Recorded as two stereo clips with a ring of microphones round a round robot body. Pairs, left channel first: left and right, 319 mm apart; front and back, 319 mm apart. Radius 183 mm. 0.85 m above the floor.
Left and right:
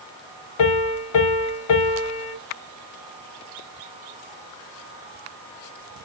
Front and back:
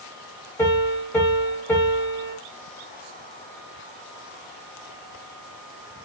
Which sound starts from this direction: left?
A piano, at 0.6 s.